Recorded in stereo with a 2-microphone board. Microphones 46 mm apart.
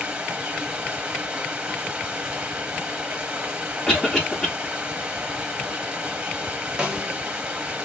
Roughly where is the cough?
Centre.